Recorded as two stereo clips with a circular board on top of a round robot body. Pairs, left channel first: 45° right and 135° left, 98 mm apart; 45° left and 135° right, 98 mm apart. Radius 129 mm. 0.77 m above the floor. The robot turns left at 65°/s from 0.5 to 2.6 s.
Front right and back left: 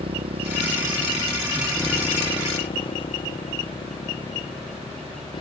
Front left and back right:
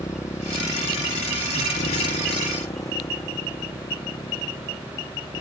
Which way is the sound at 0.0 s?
105° left.